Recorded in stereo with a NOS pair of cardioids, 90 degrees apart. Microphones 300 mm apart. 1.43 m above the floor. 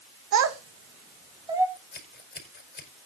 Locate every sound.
0.3 s a child speaking: 65° right, 1.5 m; by 1.7 s 10° right, 2.5 m
1.8 s scissors: 35° left, 5 m